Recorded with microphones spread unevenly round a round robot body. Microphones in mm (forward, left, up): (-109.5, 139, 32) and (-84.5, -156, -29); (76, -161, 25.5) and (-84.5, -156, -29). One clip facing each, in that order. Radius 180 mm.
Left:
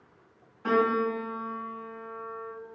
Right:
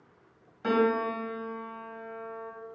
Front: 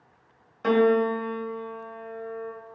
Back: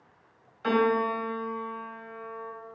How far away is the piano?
About 1.1 m.